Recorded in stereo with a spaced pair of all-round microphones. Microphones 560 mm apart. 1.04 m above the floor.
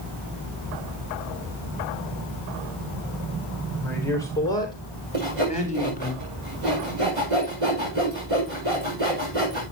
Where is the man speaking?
5° left (ahead or behind), 4.5 m; by 6.1 s 15° left (ahead or behind), 3.5 m.